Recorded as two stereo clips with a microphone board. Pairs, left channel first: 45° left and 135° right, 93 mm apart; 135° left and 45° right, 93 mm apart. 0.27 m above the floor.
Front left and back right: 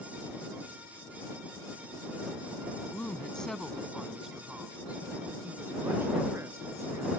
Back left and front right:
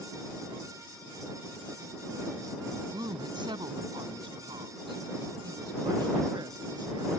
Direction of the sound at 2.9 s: 25° right.